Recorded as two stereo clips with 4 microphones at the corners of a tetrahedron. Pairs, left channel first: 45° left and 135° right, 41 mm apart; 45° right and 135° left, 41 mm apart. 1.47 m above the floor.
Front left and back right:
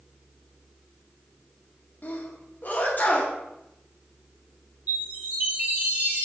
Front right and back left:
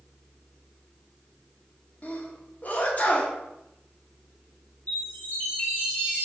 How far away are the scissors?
No scissors in this recording.